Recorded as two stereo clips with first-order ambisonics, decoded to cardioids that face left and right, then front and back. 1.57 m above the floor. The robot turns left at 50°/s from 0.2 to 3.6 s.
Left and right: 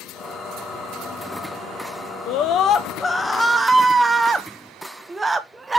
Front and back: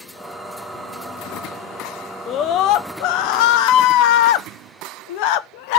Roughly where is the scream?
Ahead left.